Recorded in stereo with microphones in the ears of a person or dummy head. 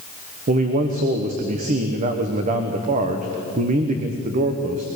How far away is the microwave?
I don't hear a microwave.